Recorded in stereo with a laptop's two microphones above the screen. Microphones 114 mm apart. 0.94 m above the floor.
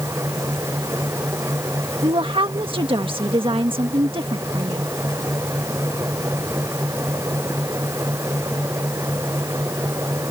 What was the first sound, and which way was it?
A fan, 25° right (ahead or behind).